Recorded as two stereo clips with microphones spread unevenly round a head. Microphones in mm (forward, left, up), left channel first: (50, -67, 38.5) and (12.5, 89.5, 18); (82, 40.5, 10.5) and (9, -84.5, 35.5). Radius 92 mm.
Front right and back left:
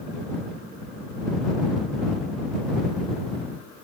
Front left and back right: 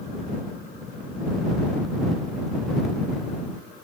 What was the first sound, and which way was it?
Only background noise.